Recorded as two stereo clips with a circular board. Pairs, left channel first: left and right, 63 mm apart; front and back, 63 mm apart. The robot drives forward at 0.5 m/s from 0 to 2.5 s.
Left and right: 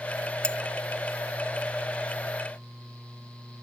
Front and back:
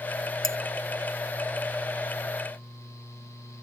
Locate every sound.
0.4 s cutlery clinking: 15° left